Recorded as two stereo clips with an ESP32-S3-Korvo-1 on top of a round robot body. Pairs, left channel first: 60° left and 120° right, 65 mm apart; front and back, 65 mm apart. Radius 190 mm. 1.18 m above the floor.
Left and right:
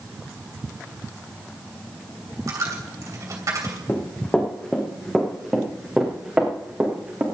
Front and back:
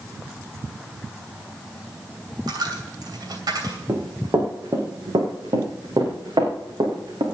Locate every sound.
2.5 s a dropped coin: 160° right, 2.5 m
3.9 s running footsteps: 125° left, 3 m; by 7.2 s 170° left, 5 m